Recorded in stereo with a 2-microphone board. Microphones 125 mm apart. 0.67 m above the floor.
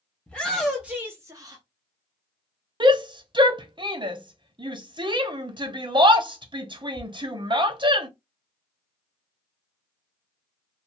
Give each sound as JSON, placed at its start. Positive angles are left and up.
{"t": 0.3, "sound": "a shout", "side_deg": 10, "distance_m": 0.9}
{"t": 2.8, "sound": "a shout", "side_deg": -40, "distance_m": 0.7}